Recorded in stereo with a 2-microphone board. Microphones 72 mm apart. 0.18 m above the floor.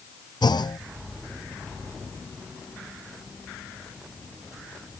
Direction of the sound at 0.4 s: 85° left.